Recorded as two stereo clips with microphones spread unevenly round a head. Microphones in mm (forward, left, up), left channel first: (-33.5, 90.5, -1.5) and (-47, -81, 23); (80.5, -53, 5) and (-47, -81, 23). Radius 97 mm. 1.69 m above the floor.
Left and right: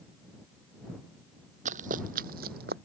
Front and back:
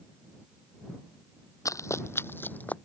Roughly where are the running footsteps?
Ahead right.